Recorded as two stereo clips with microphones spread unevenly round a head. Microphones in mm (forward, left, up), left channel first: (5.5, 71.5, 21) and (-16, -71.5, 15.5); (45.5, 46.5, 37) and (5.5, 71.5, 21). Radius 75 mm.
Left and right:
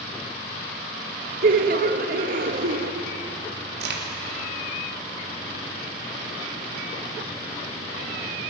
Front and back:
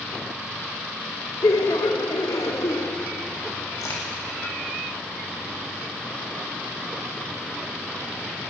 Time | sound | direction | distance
1.4 | laughter | 65° right | 1.4 m
3.8 | a crack | 80° right | 2.5 m